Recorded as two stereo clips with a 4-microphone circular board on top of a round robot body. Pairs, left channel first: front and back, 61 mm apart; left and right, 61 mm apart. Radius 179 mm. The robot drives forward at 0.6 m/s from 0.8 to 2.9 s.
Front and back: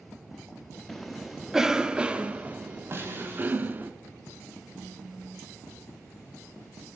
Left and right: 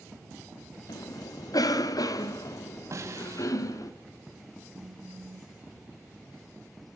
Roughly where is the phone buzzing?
Behind right.